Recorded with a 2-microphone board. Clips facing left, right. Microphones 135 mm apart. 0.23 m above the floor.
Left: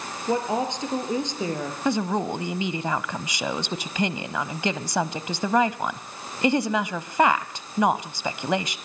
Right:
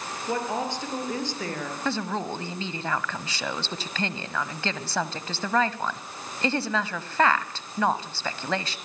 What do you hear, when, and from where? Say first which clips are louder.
0.3 s a woman speaking: left 4 dB; 20° left (ahead or behind), 5.5 m
1.9 s a woman speaking: left 5 dB; 15° left (ahead or behind), 1.0 m